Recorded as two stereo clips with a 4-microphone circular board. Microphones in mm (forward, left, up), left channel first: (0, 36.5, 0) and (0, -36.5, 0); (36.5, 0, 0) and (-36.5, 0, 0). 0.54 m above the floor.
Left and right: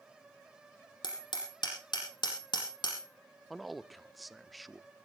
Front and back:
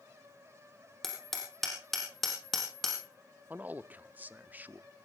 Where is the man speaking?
Straight behind, 0.6 m.